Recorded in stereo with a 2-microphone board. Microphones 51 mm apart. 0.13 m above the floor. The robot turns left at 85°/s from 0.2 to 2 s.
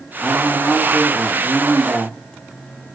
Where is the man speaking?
100° left, 3.5 m; by 2.9 s 50° right, 3.5 m.